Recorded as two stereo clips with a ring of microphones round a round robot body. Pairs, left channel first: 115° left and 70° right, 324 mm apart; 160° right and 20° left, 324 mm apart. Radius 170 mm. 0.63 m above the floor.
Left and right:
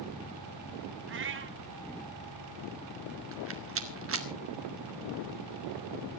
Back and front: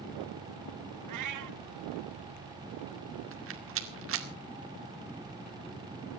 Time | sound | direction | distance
1.1 | a cat meowing | 15° right | 1.3 m
3.3 | a rattle | 25° right | 2 m